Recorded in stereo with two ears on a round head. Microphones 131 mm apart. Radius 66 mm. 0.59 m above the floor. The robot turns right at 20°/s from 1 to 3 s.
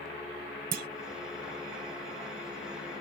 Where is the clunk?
60° right (ahead or behind).